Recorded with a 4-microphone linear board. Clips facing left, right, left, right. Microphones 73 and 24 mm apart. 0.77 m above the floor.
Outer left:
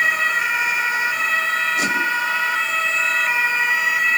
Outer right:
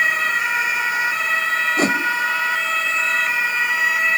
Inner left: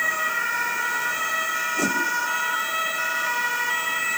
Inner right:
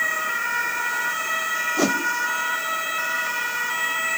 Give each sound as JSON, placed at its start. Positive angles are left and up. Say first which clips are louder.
{"t": 1.8, "sound": "a whoosh", "louder": "outer right 2 dB, inner right 3 dB", "side_deg": -40, "distance_m": 0.9}